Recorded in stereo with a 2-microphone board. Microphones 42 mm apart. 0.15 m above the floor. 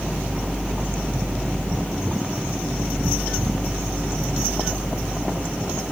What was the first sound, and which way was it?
Only background noise.